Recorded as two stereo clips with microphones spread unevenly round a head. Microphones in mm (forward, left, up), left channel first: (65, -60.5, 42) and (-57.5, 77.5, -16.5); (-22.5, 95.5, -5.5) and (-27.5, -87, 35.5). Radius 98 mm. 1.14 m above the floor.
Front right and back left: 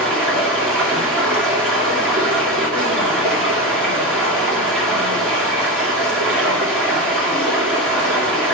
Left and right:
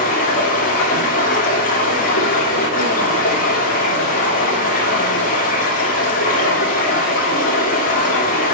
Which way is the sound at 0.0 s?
40° left.